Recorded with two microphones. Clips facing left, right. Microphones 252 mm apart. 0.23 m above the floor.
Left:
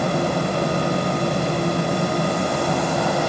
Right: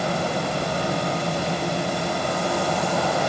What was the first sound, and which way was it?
Only background noise.